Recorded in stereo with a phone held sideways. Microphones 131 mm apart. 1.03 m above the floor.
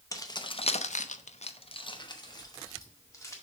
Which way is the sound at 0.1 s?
25° left (ahead or behind).